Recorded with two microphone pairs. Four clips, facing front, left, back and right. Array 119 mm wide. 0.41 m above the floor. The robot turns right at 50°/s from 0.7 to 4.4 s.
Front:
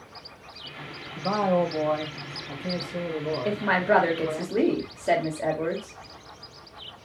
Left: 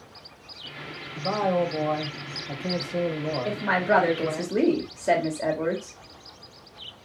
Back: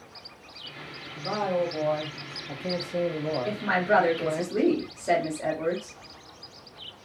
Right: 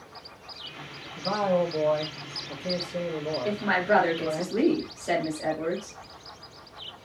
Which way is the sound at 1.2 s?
35° left.